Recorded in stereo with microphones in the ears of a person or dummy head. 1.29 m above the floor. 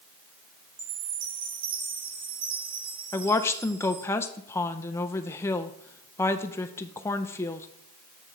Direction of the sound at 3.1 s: 15° left (ahead or behind).